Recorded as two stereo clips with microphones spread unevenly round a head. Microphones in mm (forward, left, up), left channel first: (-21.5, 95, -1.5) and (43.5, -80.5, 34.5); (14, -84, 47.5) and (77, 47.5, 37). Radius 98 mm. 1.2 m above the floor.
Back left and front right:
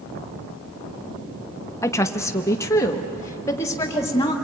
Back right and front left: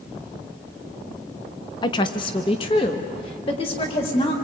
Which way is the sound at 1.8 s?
Straight behind.